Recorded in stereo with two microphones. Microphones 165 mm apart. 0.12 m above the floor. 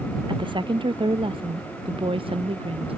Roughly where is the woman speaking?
Right.